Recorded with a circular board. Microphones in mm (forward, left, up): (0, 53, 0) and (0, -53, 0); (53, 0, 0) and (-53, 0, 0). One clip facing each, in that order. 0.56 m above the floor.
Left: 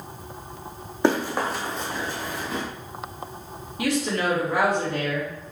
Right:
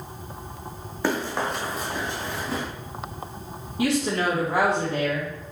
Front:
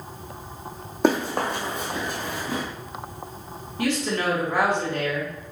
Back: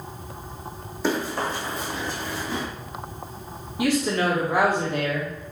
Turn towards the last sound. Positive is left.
turn(degrees=-115)